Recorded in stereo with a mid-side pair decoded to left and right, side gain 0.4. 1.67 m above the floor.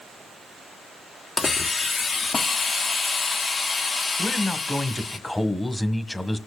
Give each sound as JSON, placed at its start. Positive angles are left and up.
{"t": 1.4, "sound": "a hiss", "azimuth_deg": 40, "distance_m": 1.2}
{"t": 4.2, "sound": "a man speaking", "azimuth_deg": 15, "distance_m": 1.6}